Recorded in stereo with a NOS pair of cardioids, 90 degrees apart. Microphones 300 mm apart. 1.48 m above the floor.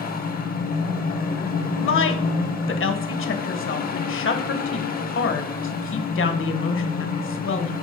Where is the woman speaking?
45° left, 1.3 m.